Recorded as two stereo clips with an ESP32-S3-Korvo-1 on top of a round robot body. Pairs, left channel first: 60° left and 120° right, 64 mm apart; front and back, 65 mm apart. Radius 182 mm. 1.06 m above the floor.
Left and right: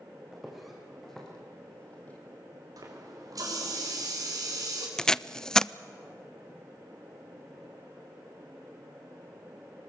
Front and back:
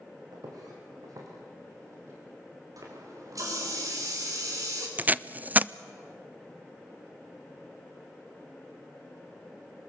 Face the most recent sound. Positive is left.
turn(degrees=135)